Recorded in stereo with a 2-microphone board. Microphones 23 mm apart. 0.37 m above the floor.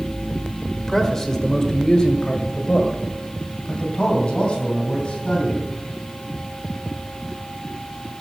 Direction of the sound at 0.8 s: 10° left (ahead or behind).